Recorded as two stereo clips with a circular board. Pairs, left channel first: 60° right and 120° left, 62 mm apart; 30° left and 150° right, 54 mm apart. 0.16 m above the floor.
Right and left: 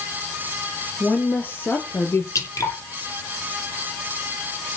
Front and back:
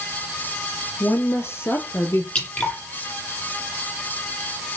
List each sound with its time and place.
1.0 s a woman speaking: straight ahead, 3.5 m; by 2.2 s 15° right, 3.5 m
2.4 s dripping: 35° right, 6.5 m